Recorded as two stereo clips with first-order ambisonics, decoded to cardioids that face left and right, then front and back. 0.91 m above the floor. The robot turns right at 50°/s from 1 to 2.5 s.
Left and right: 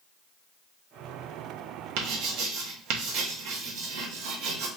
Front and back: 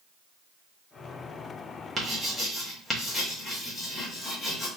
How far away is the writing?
About 0.9 m.